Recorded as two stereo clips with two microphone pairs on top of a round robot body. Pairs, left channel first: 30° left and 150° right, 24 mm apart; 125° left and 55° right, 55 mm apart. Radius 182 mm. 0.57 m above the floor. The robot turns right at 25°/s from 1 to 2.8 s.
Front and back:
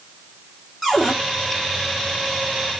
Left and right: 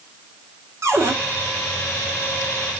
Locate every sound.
0.8 s a cupboard door: 55° right, 2.5 m; by 1.1 s 50° right, 2.5 m